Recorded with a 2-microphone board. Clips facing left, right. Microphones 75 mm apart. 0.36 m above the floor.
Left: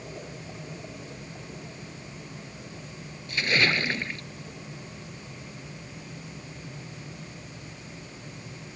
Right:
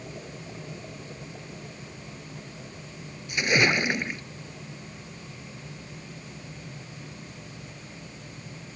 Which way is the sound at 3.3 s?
15° right (ahead or behind).